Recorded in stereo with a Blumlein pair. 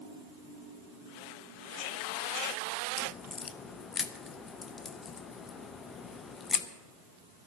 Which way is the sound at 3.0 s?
20° left.